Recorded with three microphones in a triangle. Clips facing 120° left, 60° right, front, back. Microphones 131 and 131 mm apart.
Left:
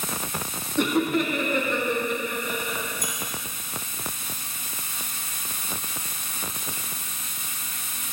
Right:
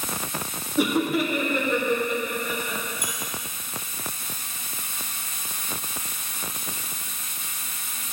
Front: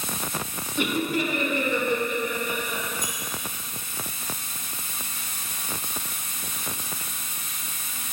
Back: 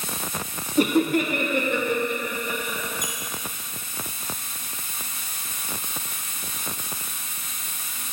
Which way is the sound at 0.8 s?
140° right.